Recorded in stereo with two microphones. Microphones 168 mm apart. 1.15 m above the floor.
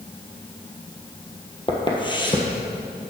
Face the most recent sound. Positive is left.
turn(degrees=30)  # may be behind; listen again after turning